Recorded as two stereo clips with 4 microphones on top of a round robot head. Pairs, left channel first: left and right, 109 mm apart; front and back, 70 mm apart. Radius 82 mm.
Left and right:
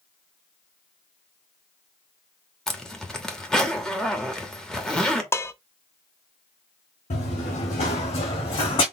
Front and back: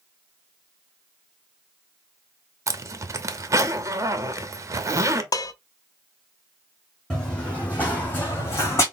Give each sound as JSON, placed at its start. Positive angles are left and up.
{"t": 2.7, "sound": "a zipper", "azimuth_deg": 175, "distance_m": 1.0}
{"t": 5.3, "sound": "dishes clattering", "azimuth_deg": 25, "distance_m": 0.7}
{"t": 7.1, "sound": "running footsteps", "azimuth_deg": 80, "distance_m": 2.5}